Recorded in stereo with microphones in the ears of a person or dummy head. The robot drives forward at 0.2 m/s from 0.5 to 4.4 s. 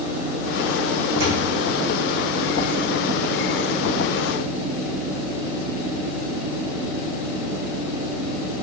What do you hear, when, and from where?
1.2 s a thud: 65° right (ahead or behind), 3.5 m